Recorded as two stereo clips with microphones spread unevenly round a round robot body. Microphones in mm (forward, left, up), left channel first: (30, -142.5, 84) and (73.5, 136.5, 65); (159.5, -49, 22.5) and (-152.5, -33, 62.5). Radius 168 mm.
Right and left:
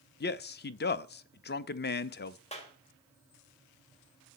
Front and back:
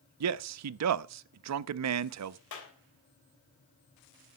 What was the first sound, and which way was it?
A man speaking, 150° right.